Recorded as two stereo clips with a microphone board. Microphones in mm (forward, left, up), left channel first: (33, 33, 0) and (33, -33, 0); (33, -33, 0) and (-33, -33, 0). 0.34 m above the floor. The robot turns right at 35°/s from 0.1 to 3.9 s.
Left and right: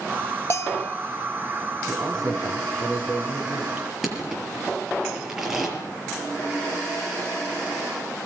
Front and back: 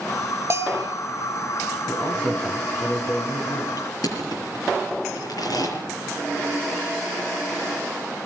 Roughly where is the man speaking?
Right.